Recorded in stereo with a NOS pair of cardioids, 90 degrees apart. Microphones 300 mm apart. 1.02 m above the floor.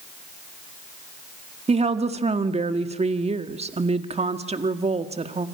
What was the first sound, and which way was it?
A woman speaking, 20° right.